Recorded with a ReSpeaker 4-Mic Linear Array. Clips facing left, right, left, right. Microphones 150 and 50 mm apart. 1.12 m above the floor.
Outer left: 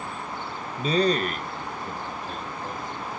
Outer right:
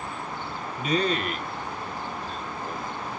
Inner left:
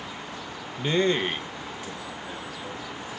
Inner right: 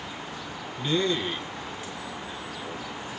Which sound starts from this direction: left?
A man speaking, at 0.8 s.